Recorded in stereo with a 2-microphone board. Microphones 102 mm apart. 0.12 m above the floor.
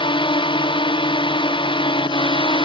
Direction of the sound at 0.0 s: 55° left (ahead or behind).